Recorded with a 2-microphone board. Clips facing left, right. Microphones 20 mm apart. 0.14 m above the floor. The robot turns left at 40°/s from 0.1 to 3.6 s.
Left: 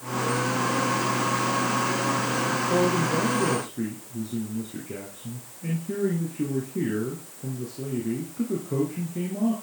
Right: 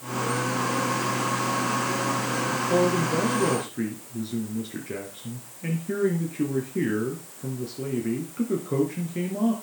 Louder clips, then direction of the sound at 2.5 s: Right 2 dB; 5° right.